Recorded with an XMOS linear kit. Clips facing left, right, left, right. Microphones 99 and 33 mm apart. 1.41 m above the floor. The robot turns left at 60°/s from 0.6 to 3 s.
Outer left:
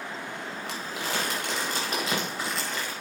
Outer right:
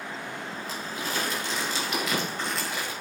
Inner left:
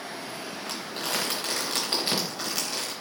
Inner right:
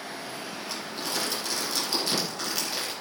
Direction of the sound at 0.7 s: 65° left (ahead or behind).